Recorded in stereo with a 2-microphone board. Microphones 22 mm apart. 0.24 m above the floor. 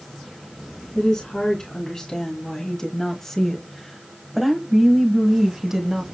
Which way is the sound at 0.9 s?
35° left (ahead or behind).